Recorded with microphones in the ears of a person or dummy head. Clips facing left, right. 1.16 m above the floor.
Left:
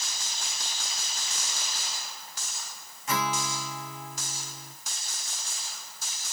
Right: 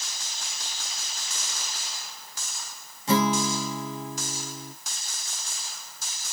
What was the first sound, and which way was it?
A guitar, 35° right (ahead or behind).